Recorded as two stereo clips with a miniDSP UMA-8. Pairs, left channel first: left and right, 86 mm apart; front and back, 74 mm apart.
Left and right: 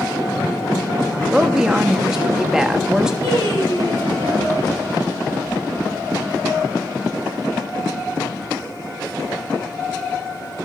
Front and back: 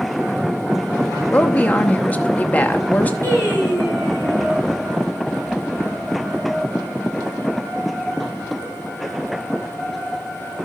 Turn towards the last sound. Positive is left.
turn(degrees=60)